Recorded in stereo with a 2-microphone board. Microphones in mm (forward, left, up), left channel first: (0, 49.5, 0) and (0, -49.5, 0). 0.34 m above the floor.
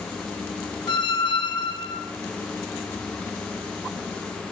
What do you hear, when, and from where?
0.9 s a squeak: 55° left (ahead or behind), 0.7 m